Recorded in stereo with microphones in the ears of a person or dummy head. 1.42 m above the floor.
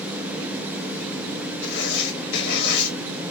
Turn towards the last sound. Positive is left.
turn(degrees=60)  # may be behind; listen again after turning